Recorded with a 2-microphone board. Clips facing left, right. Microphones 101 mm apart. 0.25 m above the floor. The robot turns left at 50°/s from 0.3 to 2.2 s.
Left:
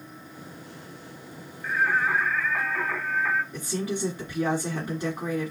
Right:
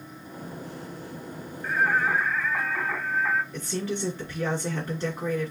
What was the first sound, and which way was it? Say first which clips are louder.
Singing: even; 30° right (ahead or behind).